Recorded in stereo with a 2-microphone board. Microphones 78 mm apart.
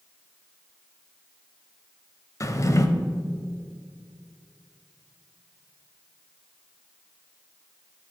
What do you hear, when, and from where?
2.4 s a drawer: 40° left (ahead or behind), 0.8 m